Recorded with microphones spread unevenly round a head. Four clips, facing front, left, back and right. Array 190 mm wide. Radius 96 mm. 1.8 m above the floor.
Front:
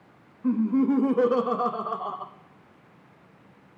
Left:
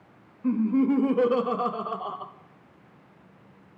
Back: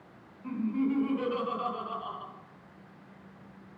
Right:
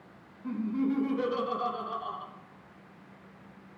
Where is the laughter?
45° left, 0.8 m.